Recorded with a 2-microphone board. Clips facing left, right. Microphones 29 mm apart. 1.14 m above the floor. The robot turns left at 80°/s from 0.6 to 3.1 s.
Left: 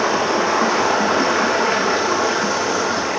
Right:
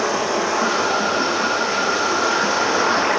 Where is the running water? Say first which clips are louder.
Left 2 dB; 145° left, 5.5 m; by 3.2 s 55° right, 5.5 m.